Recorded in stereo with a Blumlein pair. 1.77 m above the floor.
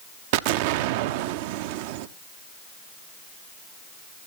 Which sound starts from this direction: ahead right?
An explosion, at 0.3 s.